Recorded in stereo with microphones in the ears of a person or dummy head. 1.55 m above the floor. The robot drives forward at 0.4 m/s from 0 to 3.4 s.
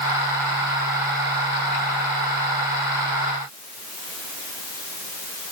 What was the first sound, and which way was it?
Only background noise.